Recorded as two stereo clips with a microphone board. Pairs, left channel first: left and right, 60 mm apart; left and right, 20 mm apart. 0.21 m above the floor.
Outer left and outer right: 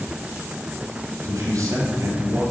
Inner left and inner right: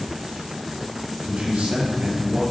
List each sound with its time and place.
1.2 s a man speaking: 70° right (ahead or behind), 4 m